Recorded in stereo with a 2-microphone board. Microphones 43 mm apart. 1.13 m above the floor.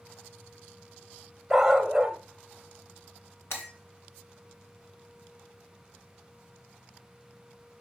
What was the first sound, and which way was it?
A dog barking, 5° right (ahead or behind).